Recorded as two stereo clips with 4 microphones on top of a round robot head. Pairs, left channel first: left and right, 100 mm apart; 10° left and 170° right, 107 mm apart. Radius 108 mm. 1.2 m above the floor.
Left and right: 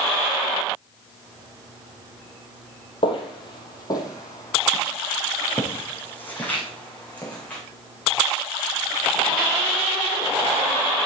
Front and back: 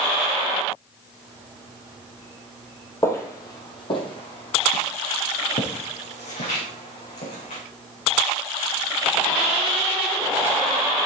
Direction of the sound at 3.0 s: 70° left.